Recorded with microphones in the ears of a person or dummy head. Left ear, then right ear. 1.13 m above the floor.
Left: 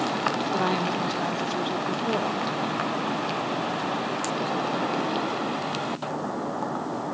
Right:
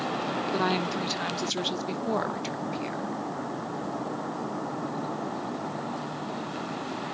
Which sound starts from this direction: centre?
A woman speaking, at 0.5 s.